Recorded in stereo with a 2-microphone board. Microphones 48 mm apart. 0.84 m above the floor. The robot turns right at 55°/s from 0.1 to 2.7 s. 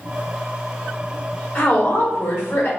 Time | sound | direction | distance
1.6 | a woman speaking | 55° left | 1.4 m